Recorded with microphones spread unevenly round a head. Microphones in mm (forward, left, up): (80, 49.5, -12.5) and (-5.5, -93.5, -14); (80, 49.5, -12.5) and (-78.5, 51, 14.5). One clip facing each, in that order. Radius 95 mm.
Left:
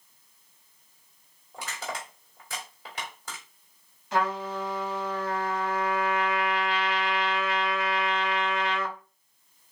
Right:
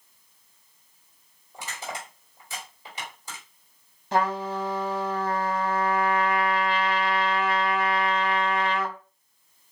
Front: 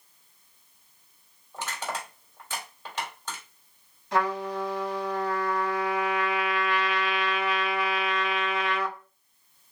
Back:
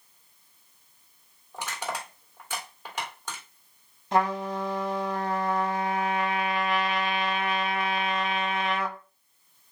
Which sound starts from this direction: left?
Crushing, at 1.5 s.